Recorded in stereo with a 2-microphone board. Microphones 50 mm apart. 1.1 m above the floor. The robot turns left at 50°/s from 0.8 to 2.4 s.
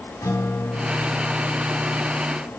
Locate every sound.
0.2 s a guitar: 85° left, 1.9 m; by 2.2 s 15° left, 1.9 m